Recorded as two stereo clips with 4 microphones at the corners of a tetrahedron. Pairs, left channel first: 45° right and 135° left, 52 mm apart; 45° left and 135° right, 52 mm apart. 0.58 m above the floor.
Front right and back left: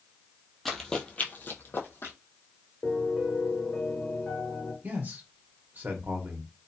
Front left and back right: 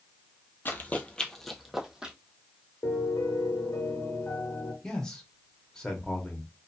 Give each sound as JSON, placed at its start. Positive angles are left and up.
{"t": 0.7, "sound": "running footsteps", "azimuth_deg": 40, "distance_m": 0.7}
{"t": 2.8, "sound": "a piano", "azimuth_deg": 30, "distance_m": 1.0}
{"t": 4.8, "sound": "a man speaking", "azimuth_deg": 115, "distance_m": 0.8}